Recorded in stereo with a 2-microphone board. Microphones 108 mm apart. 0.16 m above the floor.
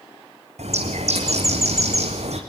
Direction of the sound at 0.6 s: 85° right.